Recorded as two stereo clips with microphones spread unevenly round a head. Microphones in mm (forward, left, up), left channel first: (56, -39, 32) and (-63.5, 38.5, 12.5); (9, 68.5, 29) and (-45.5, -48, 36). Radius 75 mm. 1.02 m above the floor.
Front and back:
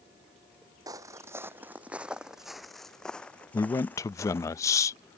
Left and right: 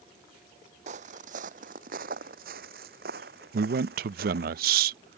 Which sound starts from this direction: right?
A man speaking, at 3.5 s.